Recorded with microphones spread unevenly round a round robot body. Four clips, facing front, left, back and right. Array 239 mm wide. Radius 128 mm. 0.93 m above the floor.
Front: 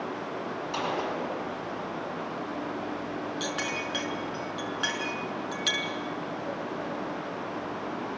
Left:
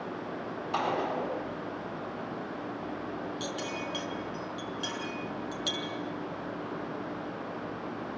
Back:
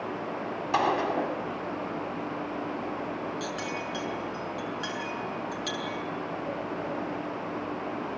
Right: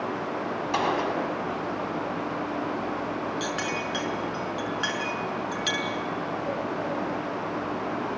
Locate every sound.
0.7 s a gunshot: 150° right, 4 m
3.4 s a clink: 35° right, 6.5 m